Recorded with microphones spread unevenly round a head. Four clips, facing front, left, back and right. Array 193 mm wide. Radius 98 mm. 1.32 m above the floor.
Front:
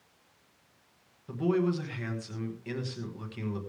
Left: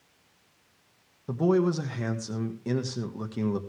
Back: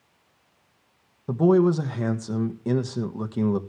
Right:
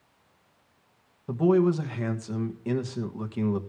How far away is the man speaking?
About 1.6 m.